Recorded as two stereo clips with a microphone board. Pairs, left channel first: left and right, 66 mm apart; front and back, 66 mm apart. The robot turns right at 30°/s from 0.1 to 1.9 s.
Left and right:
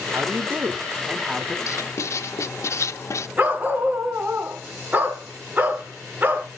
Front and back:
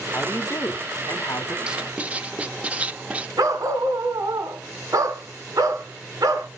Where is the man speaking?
50° right, 1.5 m; by 1.6 s 5° right, 1.5 m.